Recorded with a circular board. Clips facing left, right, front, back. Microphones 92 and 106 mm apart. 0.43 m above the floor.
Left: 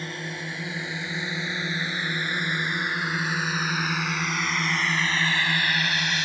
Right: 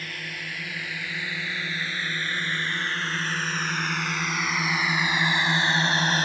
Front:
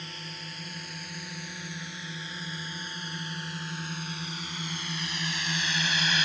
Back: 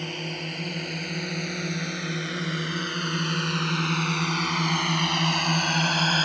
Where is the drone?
155° left; by 6.2 s 135° right.